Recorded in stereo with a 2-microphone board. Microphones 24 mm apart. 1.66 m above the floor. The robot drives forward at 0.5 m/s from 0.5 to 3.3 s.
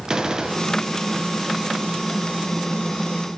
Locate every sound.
0.1 s a gunshot: 25° right (ahead or behind), 1.3 m; by 0.8 s 30° right (ahead or behind), 1.2 m